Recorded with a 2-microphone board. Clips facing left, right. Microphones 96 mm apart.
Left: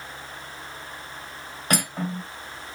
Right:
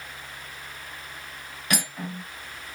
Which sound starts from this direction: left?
Cutlery clinking, at 1.7 s.